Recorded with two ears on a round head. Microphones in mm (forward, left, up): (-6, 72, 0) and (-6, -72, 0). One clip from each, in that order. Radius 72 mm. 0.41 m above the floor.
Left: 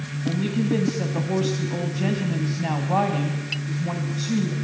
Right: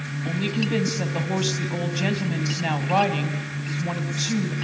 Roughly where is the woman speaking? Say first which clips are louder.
Left 1 dB; right.